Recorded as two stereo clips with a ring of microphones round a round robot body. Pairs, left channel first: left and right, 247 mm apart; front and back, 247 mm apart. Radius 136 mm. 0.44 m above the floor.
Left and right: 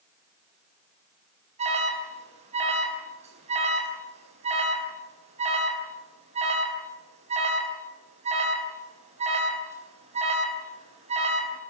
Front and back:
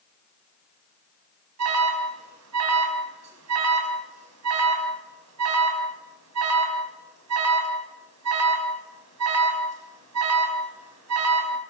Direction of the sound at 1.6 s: 155° right.